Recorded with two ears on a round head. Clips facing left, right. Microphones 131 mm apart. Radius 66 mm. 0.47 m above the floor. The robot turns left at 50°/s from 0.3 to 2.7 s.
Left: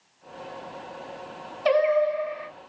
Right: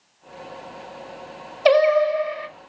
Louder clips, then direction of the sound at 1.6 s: Right 5 dB; 70° right.